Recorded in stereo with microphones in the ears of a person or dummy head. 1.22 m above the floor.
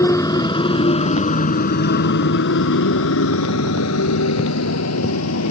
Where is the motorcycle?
10° left (ahead or behind); by 5.5 s 90° left.